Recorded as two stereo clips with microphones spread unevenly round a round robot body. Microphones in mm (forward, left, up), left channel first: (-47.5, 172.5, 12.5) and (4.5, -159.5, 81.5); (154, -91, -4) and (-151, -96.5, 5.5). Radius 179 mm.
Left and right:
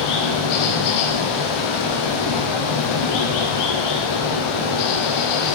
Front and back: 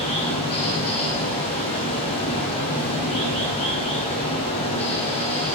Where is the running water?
75° left, 3 m.